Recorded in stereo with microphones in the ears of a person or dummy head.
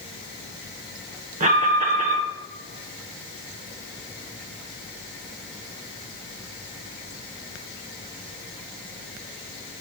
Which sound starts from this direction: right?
An alarm, at 1.4 s.